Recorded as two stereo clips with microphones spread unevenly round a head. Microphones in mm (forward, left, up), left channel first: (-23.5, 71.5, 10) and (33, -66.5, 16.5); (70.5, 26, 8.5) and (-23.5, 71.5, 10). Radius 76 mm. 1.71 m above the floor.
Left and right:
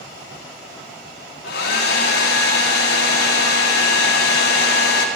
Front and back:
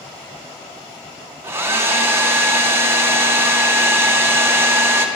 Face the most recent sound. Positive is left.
turn(degrees=85)